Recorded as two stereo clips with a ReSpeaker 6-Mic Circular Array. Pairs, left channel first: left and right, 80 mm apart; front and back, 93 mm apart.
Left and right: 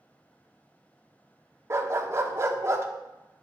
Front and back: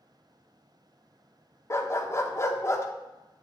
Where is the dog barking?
50° right, 0.6 m.